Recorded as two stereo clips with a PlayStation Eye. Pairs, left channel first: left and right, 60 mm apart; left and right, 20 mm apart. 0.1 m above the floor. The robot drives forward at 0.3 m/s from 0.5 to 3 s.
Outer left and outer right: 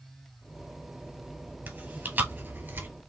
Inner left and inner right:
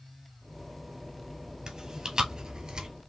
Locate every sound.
1.7 s chewing: 35° right (ahead or behind), 1.5 m; by 2.9 s 40° right (ahead or behind), 1.4 m